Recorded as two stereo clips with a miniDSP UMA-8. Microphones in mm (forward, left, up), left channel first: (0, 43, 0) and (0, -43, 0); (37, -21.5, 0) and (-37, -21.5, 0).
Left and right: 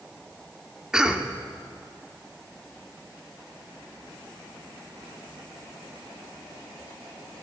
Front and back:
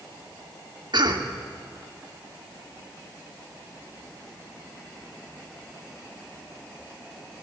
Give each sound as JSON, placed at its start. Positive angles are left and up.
{"t": 0.9, "sound": "a cough", "azimuth_deg": -170, "distance_m": 2.0}